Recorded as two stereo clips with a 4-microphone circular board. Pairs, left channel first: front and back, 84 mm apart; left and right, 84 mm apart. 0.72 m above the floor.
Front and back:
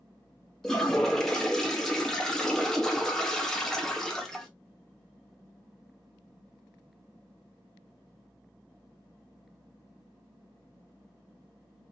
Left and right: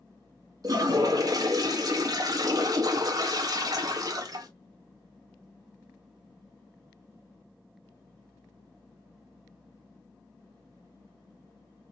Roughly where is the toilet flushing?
Right.